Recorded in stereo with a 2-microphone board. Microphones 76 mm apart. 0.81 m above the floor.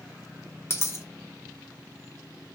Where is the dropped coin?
35° left (ahead or behind), 0.5 m.